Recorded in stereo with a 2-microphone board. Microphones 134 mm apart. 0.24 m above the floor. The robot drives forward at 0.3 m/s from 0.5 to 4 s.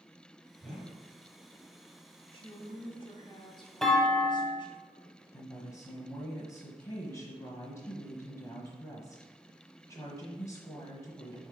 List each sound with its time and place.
0.6 s a whoosh: 5° left (ahead or behind), 3.5 m
2.3 s a woman speaking: 40° left (ahead or behind), 1.7 m; by 4.8 s 35° left (ahead or behind), 1.8 m
3.8 s a clunk: 5° left (ahead or behind), 1.1 m
5.3 s a woman speaking: 25° left (ahead or behind), 1.2 m